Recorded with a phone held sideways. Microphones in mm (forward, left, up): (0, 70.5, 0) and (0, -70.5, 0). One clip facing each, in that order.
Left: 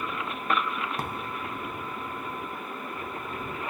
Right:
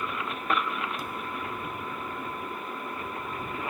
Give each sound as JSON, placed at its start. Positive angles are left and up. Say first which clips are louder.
{"t": 1.0, "sound": "a thud", "louder": "left 2 dB", "side_deg": 75}